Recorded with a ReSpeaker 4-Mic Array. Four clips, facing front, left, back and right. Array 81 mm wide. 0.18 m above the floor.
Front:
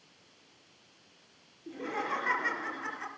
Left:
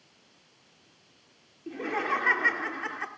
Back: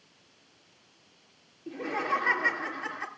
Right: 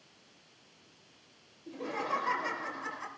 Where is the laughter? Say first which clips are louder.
Left 5 dB, back 4 dB; 105° left, 4 m.